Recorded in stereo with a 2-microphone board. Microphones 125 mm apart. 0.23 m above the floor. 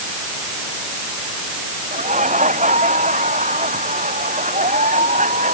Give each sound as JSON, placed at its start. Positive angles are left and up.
{"t": 1.9, "sound": "laughter", "side_deg": -80}